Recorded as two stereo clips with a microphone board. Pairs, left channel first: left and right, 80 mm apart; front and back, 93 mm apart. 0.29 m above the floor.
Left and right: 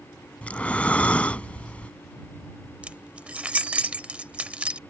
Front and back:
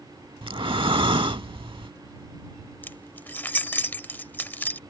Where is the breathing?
160° left.